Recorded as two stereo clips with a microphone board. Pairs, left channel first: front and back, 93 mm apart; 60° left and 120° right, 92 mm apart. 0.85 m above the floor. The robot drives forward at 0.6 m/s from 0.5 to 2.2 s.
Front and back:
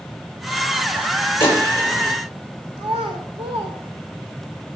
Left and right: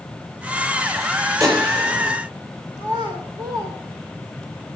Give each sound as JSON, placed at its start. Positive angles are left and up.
{"t": 1.4, "sound": "a gunshot", "azimuth_deg": -65, "distance_m": 7.0}
{"t": 2.8, "sound": "a child speaking", "azimuth_deg": -170, "distance_m": 2.0}